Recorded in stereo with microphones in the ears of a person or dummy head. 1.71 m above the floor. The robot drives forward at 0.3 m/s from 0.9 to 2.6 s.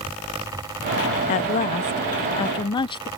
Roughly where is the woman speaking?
Left.